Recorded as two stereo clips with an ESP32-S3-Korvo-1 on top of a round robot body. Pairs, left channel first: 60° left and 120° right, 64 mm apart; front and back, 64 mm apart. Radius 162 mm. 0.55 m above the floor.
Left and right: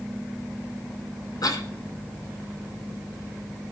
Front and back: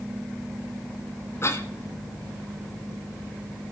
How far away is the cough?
About 4 m.